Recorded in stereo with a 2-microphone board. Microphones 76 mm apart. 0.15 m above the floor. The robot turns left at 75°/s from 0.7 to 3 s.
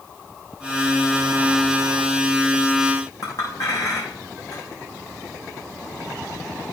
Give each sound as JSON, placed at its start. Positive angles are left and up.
{"t": 3.2, "sound": "a clink", "side_deg": 55, "distance_m": 5.5}